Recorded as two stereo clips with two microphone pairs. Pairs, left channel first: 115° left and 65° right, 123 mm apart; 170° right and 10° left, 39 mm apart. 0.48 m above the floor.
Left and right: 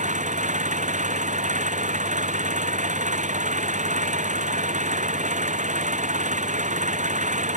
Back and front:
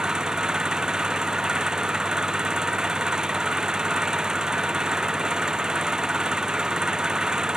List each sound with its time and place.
0.0 s an engine running: 60° right